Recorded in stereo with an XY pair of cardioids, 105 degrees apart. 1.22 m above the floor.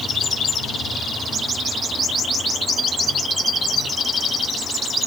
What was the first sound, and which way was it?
Only background noise.